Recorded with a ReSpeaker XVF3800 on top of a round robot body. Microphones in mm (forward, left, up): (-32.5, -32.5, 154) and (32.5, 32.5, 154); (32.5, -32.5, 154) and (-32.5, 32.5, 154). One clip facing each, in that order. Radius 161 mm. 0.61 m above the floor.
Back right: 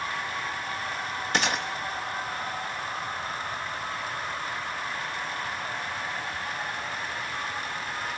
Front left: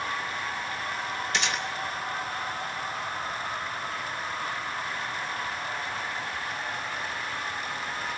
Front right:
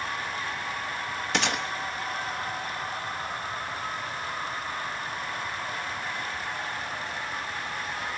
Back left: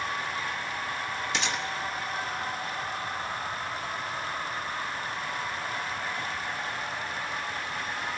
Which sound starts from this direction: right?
A gunshot, at 1.3 s.